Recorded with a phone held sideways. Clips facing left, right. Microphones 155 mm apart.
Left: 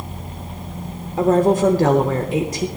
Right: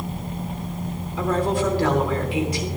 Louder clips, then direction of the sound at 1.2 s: Left 7 dB; 45° left (ahead or behind).